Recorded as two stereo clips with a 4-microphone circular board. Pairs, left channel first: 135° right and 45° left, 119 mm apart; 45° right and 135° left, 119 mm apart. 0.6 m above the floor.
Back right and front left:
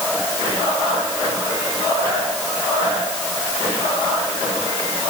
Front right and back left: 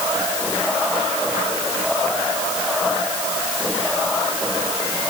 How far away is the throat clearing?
No throat clearing in this recording.